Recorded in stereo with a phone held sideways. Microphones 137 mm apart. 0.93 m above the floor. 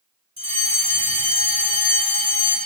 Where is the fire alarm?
45° right (ahead or behind), 5 m.